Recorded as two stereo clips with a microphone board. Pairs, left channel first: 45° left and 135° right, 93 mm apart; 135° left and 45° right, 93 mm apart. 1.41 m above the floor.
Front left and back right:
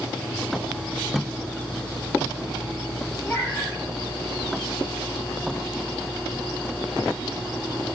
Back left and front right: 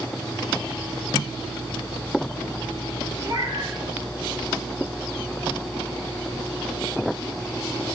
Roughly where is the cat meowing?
Ahead.